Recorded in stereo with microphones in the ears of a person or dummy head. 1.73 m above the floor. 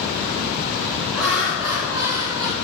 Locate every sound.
1.1 s laughter: centre (ahead or behind), 3.5 m; by 2.5 s 20° right (ahead or behind), 2 m